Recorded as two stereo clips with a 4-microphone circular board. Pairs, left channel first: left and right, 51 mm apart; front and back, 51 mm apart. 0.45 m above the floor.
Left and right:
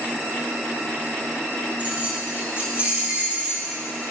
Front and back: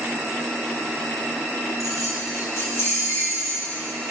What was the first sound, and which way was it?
Keys jangling, 25° right.